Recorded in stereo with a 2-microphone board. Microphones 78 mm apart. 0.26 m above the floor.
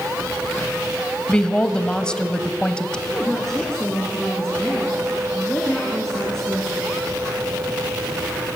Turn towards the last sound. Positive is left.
turn(degrees=5)  # may be behind; listen again after turning